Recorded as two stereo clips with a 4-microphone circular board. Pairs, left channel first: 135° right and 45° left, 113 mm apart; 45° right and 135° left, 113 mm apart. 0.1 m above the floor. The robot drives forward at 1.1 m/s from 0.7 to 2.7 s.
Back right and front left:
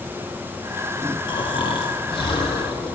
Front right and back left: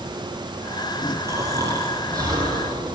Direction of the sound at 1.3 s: 170° right.